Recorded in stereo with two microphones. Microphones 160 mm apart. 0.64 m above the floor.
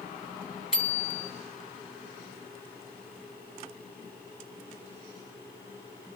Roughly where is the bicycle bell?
Centre.